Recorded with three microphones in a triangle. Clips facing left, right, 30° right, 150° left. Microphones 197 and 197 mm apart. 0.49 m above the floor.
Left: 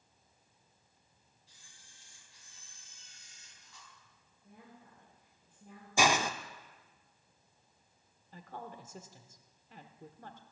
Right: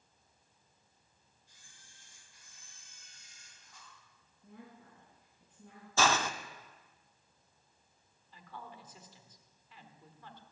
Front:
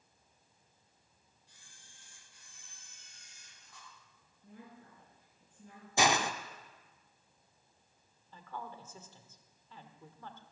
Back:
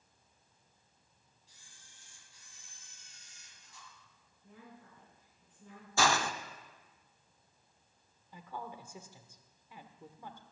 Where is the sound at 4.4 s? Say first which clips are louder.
Right 3 dB, front 1 dB; 85° right, 6 m.